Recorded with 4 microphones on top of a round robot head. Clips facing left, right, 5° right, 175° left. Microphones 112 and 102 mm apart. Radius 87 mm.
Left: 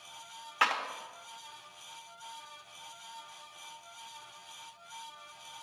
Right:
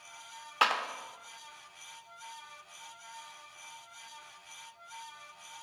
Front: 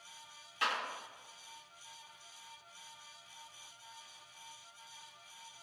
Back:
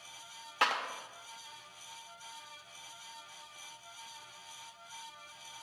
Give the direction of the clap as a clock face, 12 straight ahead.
5 o'clock.